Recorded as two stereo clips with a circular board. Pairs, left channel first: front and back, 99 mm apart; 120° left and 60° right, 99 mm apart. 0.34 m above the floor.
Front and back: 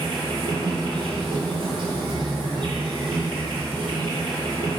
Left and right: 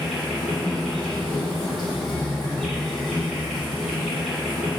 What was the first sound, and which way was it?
An insect, 150° right.